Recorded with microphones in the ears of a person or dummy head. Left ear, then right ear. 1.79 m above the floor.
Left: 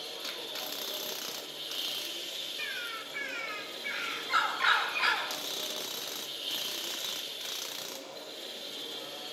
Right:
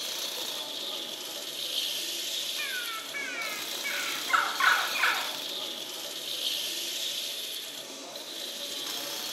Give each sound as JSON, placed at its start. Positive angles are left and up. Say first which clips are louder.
{"t": 0.0, "sound": "a machine running", "louder": "right 5 dB", "side_deg": -80, "distance_m": 4.0}
{"t": 2.6, "sound": "a bird", "louder": "right 3 dB", "side_deg": -35, "distance_m": 5.0}